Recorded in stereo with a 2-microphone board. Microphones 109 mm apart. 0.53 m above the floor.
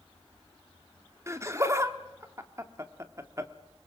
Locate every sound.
1.3 s laughter: 25° right (ahead or behind), 1.3 m